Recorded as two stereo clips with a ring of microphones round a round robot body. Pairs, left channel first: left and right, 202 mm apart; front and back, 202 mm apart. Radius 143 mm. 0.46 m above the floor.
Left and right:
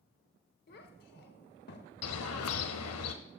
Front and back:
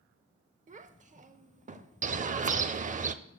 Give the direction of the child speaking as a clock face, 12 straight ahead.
8 o'clock.